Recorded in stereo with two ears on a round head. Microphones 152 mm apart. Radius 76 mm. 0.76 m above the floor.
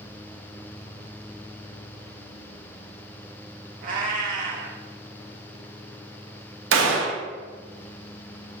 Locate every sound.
3.8 s a cat meowing: 50° right (ahead or behind), 0.7 m
6.7 s a gunshot: 85° right, 0.6 m